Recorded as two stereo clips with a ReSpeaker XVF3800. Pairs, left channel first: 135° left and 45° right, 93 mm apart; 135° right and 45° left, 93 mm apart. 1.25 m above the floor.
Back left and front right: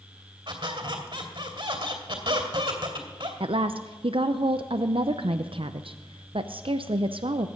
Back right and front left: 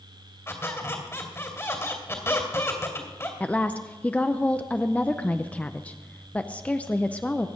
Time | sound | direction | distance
0.5 | a squeak | 75° right | 2.5 m
3.4 | a woman speaking | 60° right | 0.5 m